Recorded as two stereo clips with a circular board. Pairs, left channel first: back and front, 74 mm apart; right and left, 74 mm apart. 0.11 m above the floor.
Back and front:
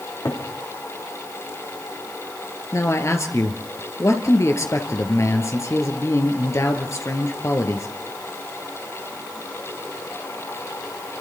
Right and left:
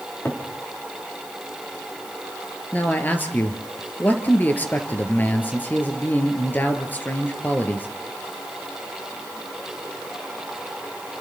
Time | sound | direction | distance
0.2 | a cupboard door | 145° right | 5.5 m
2.7 | a man speaking | 150° right | 2.5 m